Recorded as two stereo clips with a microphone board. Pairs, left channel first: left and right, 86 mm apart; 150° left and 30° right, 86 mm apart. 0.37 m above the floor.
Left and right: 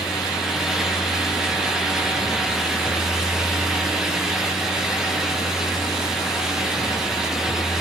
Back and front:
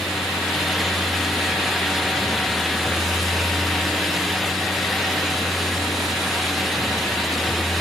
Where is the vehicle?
65° left.